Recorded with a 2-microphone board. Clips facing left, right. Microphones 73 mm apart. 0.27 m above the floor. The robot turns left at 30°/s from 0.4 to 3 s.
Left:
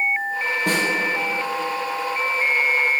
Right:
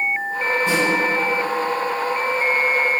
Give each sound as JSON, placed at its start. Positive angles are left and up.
{"t": 0.7, "sound": "a snare drum", "side_deg": 75, "distance_m": 5.5}